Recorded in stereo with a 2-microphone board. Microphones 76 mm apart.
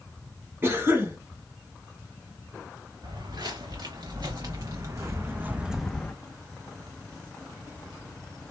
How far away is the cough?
About 1.8 m.